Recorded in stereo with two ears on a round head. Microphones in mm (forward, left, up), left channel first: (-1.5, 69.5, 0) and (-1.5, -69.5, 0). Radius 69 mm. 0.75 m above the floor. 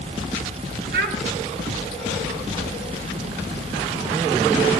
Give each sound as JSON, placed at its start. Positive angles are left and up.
{"t": 0.9, "sound": "a child speaking", "side_deg": -65, "distance_m": 1.8}